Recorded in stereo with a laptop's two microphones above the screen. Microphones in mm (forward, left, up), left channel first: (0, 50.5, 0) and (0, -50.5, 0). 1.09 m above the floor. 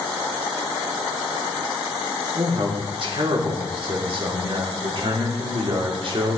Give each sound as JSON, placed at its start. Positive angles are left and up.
{"t": 2.4, "sound": "a man speaking", "side_deg": -60, "distance_m": 3.0}